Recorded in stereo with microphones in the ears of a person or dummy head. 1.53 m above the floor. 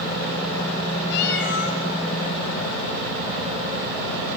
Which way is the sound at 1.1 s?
60° left (ahead or behind).